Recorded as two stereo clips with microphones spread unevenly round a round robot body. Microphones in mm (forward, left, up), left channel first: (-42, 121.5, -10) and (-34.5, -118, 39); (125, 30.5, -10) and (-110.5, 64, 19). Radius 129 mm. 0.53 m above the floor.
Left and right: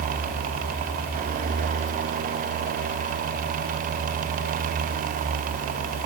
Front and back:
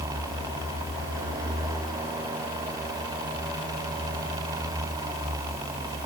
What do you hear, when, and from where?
Only background noise.